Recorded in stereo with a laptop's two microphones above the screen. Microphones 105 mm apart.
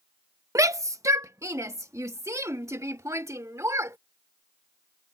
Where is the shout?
30° right (ahead or behind).